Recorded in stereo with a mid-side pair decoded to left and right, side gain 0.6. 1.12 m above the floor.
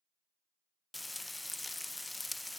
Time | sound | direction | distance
0.9 | frying | 10° left | 0.6 m